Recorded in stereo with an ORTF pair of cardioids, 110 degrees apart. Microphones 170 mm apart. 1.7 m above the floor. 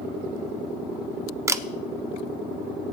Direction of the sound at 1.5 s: 15° right.